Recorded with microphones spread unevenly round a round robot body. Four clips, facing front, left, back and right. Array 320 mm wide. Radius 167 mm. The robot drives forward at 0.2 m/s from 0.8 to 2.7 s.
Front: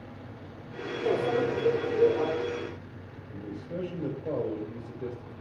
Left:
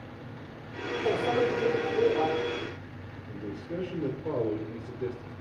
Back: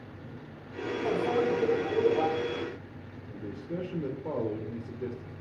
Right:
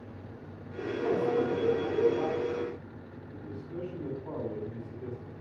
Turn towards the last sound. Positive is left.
turn(degrees=145)